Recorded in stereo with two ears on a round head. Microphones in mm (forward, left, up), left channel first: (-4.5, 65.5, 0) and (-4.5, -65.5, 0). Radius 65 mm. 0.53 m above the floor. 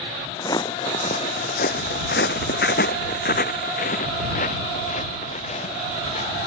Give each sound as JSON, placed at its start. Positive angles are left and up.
{"t": 0.4, "sound": "footsteps", "side_deg": 25}